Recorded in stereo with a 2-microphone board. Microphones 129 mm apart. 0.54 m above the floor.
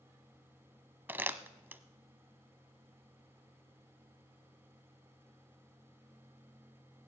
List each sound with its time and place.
1.1 s crumpling: 15° right (ahead or behind), 0.8 m